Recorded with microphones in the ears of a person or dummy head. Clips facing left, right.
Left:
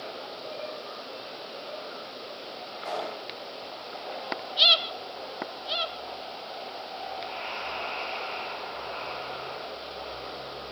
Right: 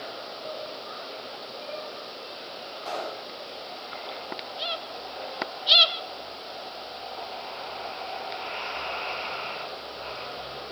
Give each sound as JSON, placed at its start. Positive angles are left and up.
{"t": 2.8, "sound": "a pop", "side_deg": 20, "distance_m": 6.0}